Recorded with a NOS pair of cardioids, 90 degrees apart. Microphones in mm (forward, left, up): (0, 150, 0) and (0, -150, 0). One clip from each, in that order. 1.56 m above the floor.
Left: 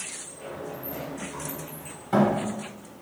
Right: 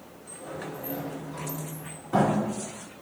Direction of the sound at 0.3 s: 65° left.